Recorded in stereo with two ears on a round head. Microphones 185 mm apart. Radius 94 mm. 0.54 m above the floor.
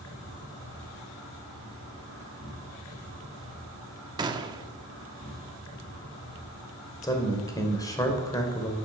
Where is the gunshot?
20° right (ahead or behind), 0.9 m.